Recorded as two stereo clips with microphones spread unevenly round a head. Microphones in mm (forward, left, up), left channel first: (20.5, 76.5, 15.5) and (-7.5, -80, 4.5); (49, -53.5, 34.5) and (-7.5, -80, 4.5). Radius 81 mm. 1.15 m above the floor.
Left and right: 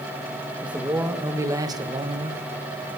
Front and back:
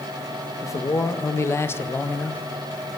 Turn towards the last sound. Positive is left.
turn(degrees=-60)